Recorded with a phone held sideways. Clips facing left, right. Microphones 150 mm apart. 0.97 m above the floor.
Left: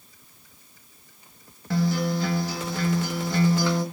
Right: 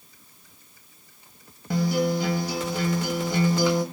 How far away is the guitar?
About 1.2 m.